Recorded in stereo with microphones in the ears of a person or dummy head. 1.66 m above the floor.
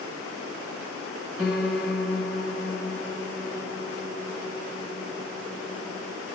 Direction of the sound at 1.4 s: Centre (ahead or behind).